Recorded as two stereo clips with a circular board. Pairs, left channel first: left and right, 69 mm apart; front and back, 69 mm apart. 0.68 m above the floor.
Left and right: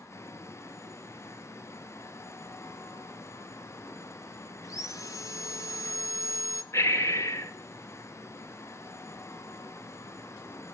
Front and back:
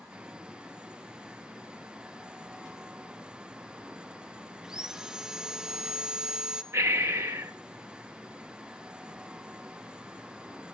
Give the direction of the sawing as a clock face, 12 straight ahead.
9 o'clock.